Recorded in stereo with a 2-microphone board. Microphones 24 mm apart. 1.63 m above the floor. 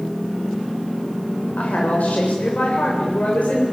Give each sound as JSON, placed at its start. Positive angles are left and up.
{"t": 1.6, "sound": "a woman speaking", "side_deg": 90, "distance_m": 7.0}